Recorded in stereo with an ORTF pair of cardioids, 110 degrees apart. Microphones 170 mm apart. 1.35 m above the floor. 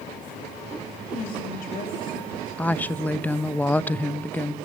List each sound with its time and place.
1.1 s a woman speaking: 55° left, 3 m
2.6 s a woman speaking: 10° left, 1.0 m